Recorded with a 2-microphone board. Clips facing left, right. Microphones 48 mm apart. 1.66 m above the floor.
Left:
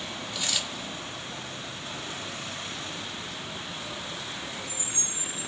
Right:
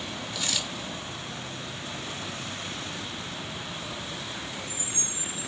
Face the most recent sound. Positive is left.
turn(degrees=10)  # may be behind; listen again after turning